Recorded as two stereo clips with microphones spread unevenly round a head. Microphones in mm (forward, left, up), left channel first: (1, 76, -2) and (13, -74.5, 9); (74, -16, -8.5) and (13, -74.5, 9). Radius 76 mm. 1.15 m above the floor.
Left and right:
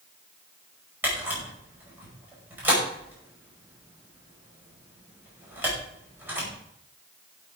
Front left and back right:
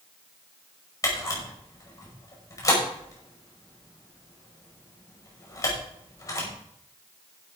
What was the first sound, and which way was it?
A camera shutter, 5° right.